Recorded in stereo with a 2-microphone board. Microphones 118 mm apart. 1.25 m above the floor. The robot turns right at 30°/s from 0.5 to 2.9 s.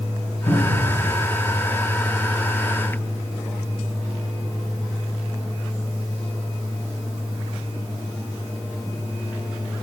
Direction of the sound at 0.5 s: 85° left.